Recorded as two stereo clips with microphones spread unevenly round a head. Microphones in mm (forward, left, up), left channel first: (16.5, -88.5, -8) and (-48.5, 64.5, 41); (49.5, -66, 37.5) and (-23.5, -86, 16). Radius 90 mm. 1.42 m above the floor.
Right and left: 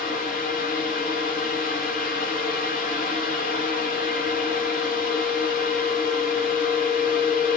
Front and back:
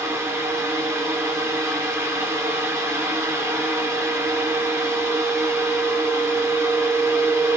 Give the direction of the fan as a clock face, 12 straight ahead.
4 o'clock.